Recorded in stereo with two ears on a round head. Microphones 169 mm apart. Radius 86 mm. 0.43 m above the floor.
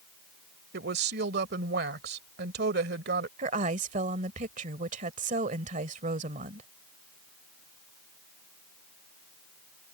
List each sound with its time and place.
0.7 s a woman speaking: 55° right (ahead or behind)
3.4 s a woman speaking: 40° right (ahead or behind)